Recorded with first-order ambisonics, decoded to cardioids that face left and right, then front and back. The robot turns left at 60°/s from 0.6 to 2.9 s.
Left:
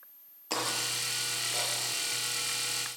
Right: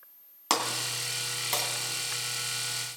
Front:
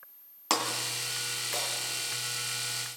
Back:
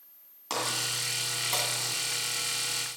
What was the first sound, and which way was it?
Breaking glass, 60° right.